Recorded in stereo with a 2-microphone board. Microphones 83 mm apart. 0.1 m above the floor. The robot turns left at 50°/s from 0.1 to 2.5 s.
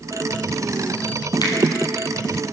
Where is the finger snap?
55° left (ahead or behind), 2 m; by 1.6 s 60° left (ahead or behind), 2 m.